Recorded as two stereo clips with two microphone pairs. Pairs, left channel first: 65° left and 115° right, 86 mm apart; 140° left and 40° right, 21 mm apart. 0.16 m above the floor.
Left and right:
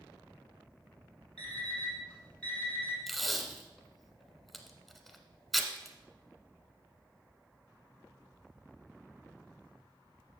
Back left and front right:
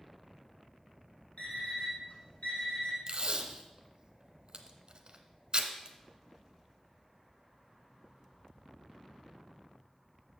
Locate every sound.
1.4 s an alarm clock: 140° left, 3 m
3.1 s tape being pulled: 25° right, 0.9 m